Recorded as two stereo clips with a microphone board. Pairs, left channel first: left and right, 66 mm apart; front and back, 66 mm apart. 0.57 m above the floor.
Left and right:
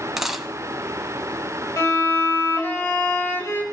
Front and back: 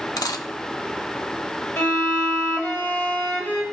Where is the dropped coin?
5° right, 0.9 m.